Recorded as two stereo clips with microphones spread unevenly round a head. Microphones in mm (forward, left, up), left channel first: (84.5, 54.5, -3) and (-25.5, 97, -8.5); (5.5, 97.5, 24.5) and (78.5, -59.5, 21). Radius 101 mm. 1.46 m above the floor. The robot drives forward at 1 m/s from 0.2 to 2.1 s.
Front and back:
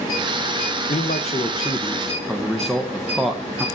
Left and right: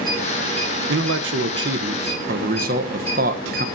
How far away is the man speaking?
About 1.7 m.